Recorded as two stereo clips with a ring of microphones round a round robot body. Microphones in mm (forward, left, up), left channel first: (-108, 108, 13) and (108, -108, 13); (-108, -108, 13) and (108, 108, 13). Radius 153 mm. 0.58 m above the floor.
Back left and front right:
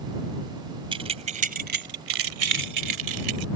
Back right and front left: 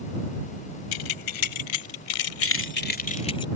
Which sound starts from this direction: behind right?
Keys jangling, at 0.9 s.